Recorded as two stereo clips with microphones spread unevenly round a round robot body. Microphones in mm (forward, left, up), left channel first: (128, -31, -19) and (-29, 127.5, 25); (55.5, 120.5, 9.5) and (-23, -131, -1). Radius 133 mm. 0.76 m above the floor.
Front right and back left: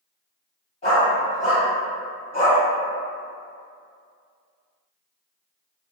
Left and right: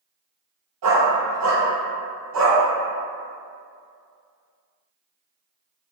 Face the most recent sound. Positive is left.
turn(degrees=-115)